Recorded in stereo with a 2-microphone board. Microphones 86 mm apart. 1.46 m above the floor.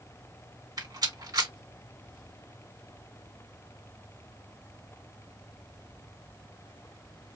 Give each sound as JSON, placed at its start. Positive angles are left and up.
{"t": 0.8, "sound": "a rattle", "side_deg": -55, "distance_m": 1.7}